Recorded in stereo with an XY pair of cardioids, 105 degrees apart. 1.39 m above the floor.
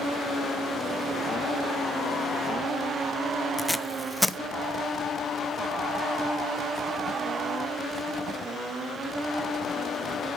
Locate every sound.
3.6 s tape being pulled: 5° left, 0.7 m